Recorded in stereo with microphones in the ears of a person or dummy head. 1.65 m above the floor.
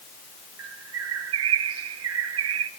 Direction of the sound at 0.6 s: 85° right.